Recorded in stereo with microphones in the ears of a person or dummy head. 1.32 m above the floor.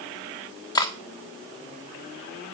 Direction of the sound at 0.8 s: 20° left (ahead or behind).